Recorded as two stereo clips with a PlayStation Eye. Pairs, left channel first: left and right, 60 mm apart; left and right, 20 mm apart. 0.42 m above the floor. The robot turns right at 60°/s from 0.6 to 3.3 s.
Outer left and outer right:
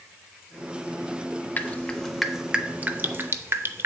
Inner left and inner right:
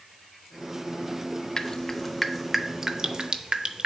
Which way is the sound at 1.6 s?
30° left (ahead or behind).